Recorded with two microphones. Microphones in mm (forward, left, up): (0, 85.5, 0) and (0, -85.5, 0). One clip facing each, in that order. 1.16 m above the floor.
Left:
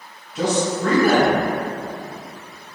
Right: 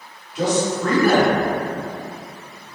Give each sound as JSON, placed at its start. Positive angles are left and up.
{"t": 0.3, "sound": "a man speaking", "side_deg": 50, "distance_m": 1.4}